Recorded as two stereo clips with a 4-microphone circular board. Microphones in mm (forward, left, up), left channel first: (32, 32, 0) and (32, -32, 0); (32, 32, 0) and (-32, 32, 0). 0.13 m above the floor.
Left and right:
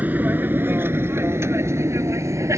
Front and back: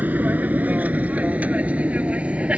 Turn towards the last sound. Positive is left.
turn(degrees=-110)